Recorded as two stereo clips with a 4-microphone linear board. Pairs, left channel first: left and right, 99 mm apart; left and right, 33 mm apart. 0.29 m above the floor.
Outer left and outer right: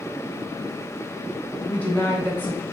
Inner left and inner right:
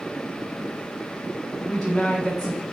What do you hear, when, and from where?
1.6 s a woman speaking: 15° left (ahead or behind), 1.6 m